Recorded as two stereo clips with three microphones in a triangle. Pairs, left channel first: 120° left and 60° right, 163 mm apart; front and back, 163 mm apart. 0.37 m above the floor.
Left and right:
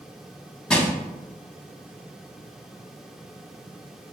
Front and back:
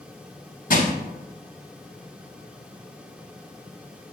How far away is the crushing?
About 0.6 m.